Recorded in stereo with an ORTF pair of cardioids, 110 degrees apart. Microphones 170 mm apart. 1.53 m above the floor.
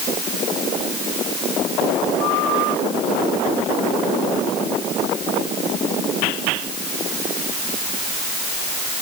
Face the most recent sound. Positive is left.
No sound to turn to.